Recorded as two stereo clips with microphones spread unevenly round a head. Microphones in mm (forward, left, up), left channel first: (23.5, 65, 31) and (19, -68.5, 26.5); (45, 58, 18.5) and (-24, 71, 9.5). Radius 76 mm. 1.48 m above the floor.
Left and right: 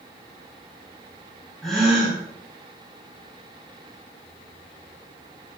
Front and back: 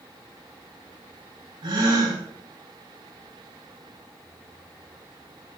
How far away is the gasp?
About 6 m.